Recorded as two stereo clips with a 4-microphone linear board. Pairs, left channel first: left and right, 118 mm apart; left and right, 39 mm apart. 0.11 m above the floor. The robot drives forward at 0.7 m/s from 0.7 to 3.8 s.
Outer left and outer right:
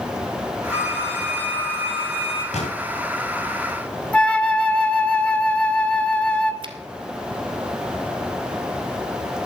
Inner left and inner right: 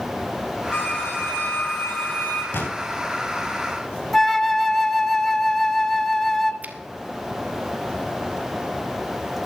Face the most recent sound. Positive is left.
turn(degrees=-45)  # may be behind; listen again after turning